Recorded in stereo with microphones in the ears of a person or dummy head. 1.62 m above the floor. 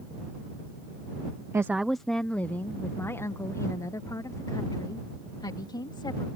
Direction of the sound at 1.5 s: 15° right (ahead or behind).